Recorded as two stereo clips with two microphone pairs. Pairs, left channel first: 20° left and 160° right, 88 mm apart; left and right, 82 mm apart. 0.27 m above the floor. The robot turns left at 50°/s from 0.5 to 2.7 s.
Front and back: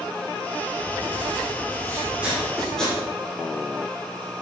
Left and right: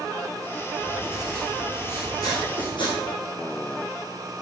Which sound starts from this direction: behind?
Writing, at 0.8 s.